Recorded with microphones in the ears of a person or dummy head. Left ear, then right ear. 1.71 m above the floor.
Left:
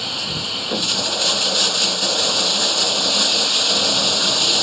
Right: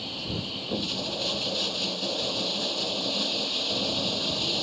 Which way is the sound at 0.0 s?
60° left (ahead or behind).